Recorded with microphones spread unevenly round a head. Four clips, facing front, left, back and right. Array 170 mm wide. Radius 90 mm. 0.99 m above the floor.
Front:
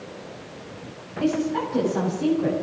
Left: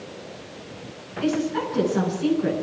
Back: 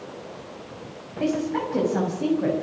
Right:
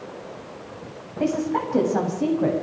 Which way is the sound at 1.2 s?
100° right.